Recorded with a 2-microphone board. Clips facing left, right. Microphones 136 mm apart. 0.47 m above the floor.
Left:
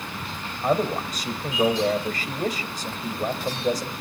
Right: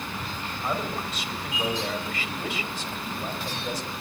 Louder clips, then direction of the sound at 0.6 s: Left 8 dB; 40° left (ahead or behind).